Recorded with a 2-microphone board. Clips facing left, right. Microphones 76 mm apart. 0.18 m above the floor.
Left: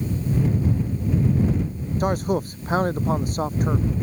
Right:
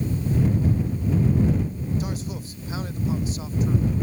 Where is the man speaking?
55° left (ahead or behind).